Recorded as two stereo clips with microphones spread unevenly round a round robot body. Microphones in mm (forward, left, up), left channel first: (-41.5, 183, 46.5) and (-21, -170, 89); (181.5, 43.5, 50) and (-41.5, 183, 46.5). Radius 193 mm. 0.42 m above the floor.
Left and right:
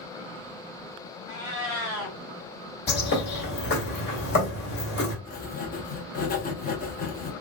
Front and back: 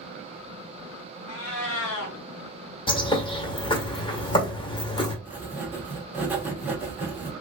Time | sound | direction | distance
1.3 | a cat meowing | 5° right | 1.9 m
2.9 | a bird | 40° left | 1.5 m
5.2 | writing | 70° left | 1.2 m